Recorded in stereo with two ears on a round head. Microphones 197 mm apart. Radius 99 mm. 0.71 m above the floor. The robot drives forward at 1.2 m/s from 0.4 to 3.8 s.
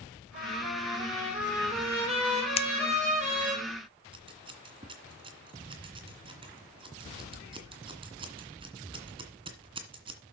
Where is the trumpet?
20° right (ahead or behind), 10 m; by 3.6 s 35° right (ahead or behind), 6.5 m.